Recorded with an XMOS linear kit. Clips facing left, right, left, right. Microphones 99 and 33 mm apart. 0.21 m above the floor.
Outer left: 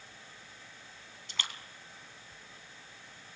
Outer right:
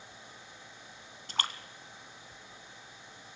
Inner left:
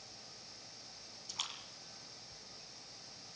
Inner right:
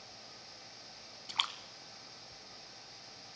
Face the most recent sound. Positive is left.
turn(degrees=-50)  # may be behind; listen again after turning